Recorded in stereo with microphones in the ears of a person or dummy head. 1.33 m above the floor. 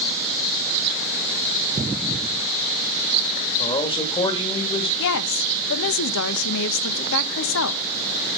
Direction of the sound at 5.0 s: 75° left (ahead or behind).